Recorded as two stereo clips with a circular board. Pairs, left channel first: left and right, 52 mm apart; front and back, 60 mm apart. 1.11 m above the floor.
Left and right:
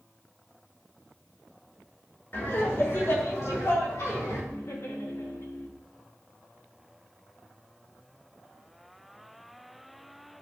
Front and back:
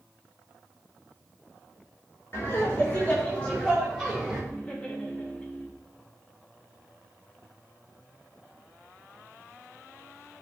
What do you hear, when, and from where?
2.3 s laughter: 50° left, 3 m; by 4.4 s 90° left, 3.5 m
4.5 s laughter: 70° left, 1.7 m